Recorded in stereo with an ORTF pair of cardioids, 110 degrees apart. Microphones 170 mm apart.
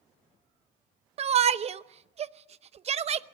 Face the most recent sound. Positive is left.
turn(degrees=-40)